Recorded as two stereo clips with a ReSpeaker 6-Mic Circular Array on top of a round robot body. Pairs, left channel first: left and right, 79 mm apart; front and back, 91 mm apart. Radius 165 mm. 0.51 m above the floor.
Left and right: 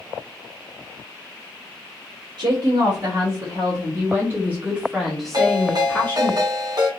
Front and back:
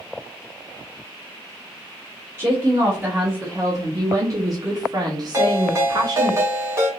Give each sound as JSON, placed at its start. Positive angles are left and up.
{"t": 2.4, "sound": "a woman speaking", "azimuth_deg": -110, "distance_m": 1.9}
{"t": 5.3, "sound": "a ringtone", "azimuth_deg": -120, "distance_m": 1.6}